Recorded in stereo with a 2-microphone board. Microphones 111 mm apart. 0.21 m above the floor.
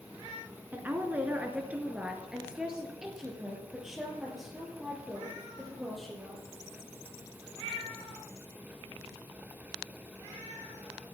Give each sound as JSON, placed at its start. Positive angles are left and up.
{"t": 0.7, "sound": "a woman speaking", "side_deg": -15, "distance_m": 2.5}